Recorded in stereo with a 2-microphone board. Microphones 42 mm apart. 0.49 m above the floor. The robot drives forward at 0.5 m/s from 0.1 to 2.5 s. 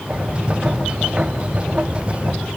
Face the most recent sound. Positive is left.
No sound to turn to.